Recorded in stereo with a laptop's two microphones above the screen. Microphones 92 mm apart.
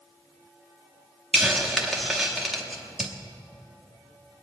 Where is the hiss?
Centre (ahead or behind), 0.9 m.